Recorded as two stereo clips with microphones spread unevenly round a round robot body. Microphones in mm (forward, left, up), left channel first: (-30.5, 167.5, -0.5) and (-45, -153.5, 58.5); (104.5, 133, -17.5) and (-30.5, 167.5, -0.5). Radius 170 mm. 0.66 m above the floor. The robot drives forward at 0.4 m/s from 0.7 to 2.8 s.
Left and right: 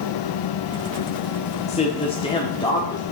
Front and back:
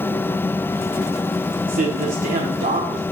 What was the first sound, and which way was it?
A man speaking, 150° left.